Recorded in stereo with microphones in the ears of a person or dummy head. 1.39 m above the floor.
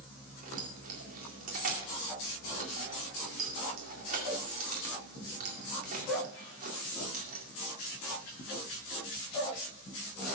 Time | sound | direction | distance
0.4 | keys jangling | 50° right (ahead or behind) | 2 m